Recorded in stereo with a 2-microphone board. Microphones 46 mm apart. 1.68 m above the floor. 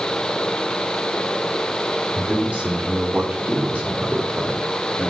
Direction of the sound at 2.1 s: 35° right (ahead or behind).